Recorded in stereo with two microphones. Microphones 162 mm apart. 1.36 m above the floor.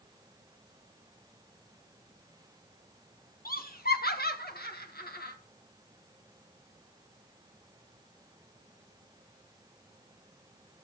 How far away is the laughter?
About 1.4 m.